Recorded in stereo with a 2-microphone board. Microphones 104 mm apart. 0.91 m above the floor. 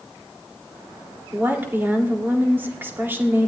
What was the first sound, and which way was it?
A woman speaking, 20° right (ahead or behind).